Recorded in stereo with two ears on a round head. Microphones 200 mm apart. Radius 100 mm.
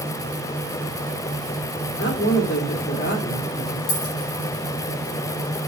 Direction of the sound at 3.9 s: 80° left.